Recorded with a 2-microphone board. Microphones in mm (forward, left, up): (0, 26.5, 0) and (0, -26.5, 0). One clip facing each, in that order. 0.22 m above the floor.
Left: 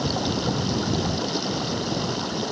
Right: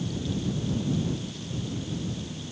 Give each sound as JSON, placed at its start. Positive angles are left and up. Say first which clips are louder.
{"t": 0.0, "sound": "running water", "louder": "left 6 dB", "side_deg": 80}